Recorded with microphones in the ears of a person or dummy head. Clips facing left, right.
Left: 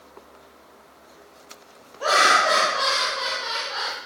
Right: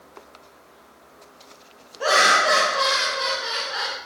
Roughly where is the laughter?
Right.